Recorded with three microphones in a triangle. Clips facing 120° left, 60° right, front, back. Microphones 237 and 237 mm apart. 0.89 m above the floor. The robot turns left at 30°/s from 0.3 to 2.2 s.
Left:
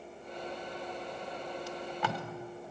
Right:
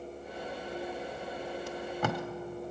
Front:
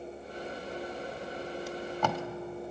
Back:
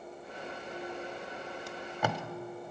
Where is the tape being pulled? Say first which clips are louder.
Right 4 dB, front 1 dB; 85° right, 0.7 m; by 2.2 s 105° right, 0.7 m.